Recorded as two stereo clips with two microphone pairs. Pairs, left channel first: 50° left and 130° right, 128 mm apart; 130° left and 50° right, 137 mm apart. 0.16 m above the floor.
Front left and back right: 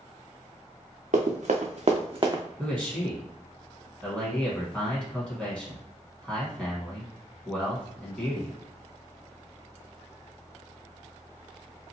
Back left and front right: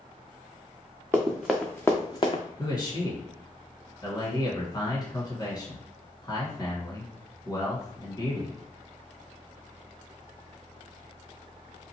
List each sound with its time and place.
1.1 s running footsteps: 125° right, 0.9 m; by 2.4 s 170° left, 0.8 m
2.6 s a man speaking: 125° left, 1.4 m